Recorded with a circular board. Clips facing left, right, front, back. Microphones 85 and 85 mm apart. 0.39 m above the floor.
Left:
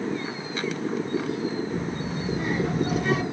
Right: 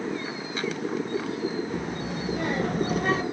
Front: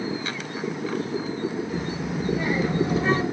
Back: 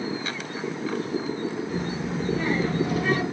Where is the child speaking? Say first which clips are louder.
Left 1 dB, even; 90° right, 1.6 m; by 3.2 s 45° right, 0.8 m.